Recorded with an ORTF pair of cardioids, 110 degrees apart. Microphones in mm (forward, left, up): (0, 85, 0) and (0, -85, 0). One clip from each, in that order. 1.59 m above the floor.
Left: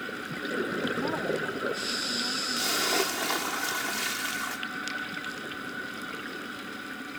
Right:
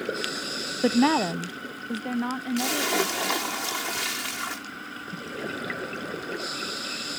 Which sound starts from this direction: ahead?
A splash, at 2.6 s.